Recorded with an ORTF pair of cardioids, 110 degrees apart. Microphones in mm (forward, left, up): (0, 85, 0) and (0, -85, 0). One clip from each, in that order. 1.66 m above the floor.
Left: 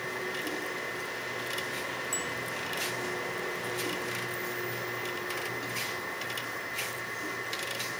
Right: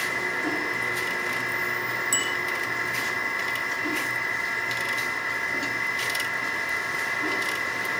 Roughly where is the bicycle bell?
Ahead right.